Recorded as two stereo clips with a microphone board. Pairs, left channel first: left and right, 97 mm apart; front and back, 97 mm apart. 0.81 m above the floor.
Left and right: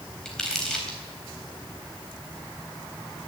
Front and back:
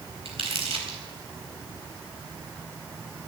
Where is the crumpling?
175° left, 4 m.